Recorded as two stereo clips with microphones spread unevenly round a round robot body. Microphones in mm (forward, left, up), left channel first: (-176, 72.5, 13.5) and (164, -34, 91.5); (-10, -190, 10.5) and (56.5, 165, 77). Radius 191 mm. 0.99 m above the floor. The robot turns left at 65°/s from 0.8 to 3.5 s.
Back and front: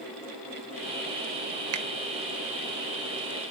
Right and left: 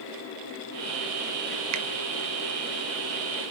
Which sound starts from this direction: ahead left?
A finger snap, at 1.7 s.